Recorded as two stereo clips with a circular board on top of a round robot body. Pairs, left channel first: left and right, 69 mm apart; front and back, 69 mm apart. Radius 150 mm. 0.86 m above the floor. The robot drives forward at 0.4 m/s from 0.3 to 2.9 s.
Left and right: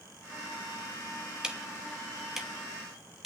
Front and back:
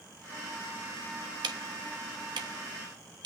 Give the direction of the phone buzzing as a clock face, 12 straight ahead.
I don't hear a phone buzzing.